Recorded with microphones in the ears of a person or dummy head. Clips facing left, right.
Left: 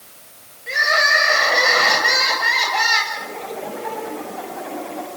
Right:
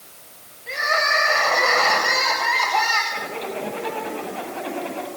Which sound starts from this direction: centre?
Crying, at 0.7 s.